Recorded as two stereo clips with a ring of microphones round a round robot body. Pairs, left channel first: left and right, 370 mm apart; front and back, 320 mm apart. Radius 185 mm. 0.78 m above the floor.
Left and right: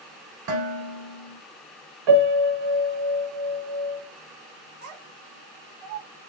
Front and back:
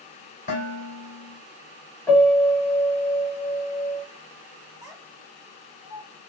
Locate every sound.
0.5 s dishes clattering: 70° right, 3 m
2.1 s a piano: 85° right, 1.2 m
4.8 s a child speaking: 95° right, 1.4 m